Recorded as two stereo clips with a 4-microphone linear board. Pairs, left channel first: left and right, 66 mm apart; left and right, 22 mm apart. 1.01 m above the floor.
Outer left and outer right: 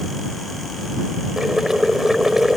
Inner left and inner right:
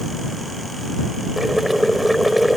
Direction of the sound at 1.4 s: 5° right (ahead or behind).